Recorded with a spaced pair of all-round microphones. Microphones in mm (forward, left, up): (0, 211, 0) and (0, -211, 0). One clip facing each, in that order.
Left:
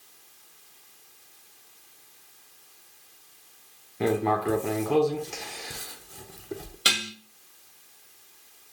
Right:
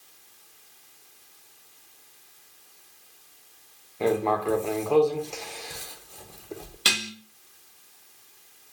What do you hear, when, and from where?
4.0 s writing: 30° left (ahead or behind), 0.5 m
6.8 s dishes clattering: 5° right (ahead or behind), 0.7 m